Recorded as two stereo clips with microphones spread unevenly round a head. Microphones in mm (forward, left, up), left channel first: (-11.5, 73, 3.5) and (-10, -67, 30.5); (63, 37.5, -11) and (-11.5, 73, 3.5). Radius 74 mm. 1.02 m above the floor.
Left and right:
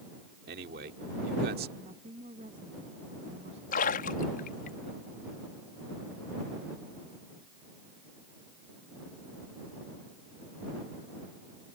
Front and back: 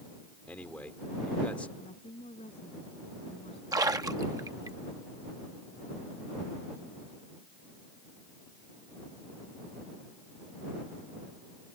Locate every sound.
0.5 s a man speaking: 110° right
1.8 s a woman speaking: 40° right
3.7 s a splash: 105° left